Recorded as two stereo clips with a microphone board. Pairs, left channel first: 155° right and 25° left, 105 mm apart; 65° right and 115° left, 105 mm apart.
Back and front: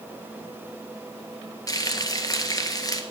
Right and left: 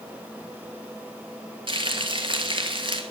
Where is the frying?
150° left, 1.7 m.